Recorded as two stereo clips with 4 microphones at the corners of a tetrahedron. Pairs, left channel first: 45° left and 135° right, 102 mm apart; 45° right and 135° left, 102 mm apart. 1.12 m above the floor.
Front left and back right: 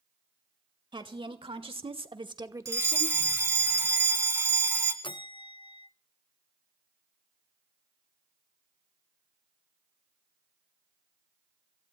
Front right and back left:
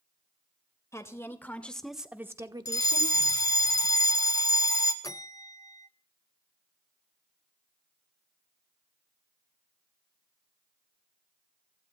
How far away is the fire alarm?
About 1.4 m.